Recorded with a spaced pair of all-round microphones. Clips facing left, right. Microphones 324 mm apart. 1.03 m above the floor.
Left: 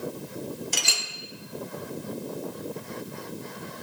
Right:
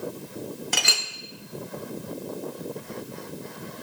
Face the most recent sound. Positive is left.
turn(degrees=-85)